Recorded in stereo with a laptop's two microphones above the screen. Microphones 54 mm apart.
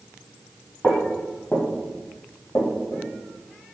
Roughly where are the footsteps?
Centre.